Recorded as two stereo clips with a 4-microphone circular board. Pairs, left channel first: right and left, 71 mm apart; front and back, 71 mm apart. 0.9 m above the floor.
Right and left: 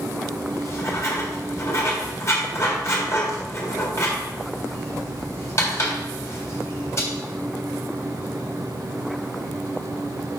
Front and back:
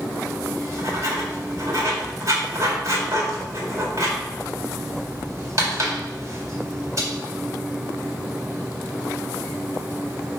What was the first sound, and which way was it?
Writing, 145° right.